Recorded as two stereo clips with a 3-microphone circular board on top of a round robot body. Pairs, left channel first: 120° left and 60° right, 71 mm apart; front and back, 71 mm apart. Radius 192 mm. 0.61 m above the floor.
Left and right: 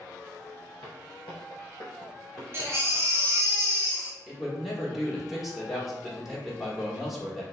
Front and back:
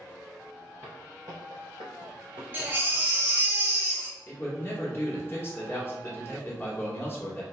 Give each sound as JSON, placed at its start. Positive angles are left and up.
{"t": 0.8, "sound": "footsteps", "azimuth_deg": 115, "distance_m": 0.7}
{"t": 2.5, "sound": "a baby crying", "azimuth_deg": -115, "distance_m": 0.6}
{"t": 4.3, "sound": "a man speaking", "azimuth_deg": 25, "distance_m": 1.4}